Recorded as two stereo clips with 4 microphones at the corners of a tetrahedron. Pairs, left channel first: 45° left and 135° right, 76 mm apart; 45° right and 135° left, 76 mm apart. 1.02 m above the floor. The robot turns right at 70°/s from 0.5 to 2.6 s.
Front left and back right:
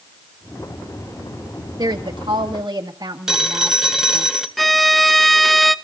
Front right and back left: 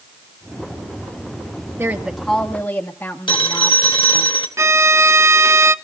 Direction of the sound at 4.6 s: 135° left.